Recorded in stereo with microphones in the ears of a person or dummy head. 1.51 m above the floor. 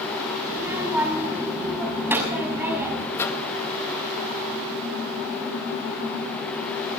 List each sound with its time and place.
0.5 s a child speaking: 15° right (ahead or behind), 6 m
3.1 s a microwave: 20° left (ahead or behind), 1.9 m